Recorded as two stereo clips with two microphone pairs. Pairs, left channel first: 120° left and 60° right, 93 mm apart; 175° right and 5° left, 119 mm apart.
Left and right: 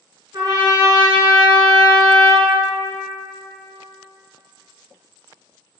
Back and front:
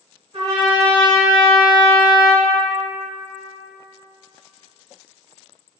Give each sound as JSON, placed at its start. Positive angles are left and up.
{"t": 0.3, "sound": "a trumpet", "azimuth_deg": -30, "distance_m": 0.9}